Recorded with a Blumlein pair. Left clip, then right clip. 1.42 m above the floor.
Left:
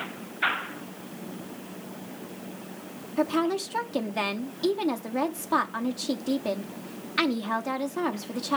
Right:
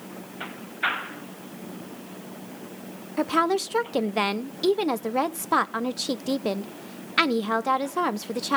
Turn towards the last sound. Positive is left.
turn(degrees=-15)